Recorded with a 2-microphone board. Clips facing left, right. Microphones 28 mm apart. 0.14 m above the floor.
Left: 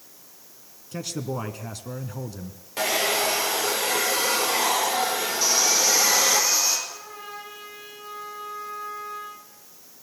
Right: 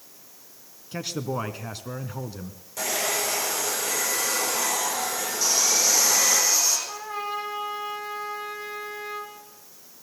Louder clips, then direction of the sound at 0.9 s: Right 1 dB; 20° right (ahead or behind).